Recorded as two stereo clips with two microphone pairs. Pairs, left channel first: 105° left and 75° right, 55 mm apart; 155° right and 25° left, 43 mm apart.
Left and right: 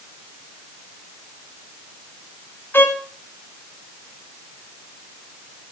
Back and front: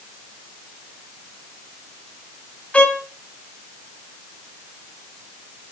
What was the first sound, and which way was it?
A violin, 145° left.